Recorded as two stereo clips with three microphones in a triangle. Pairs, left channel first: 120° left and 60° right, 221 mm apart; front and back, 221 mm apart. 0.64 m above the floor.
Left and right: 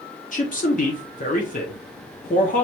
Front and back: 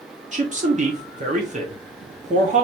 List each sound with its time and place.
0.3 s a man speaking: 145° left, 0.9 m